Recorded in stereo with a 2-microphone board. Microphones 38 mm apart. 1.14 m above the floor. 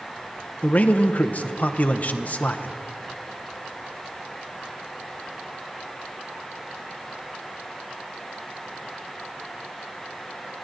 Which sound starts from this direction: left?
A man speaking, at 0.6 s.